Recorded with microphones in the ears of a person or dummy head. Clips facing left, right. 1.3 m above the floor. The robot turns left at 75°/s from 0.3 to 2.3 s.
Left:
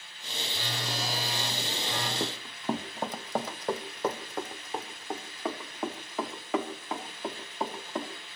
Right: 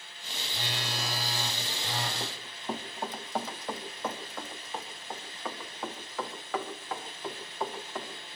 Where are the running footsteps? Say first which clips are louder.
Left 6 dB; 45° left (ahead or behind), 3 m; by 8.1 s 15° left (ahead or behind), 6.5 m.